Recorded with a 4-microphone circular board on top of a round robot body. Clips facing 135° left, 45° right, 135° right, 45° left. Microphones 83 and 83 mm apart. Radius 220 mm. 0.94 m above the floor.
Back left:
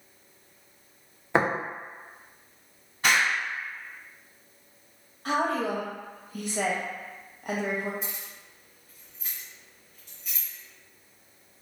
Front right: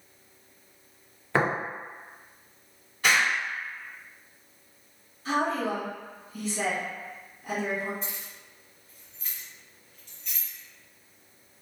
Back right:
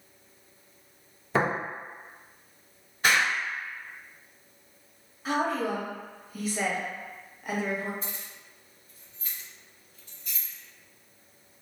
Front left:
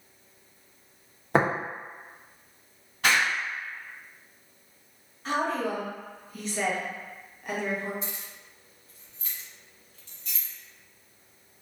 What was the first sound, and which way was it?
Tapping, 65° left.